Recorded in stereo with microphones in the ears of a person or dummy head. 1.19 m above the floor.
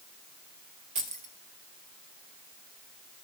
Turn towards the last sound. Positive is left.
turn(degrees=-40)  # may be behind; listen again after turning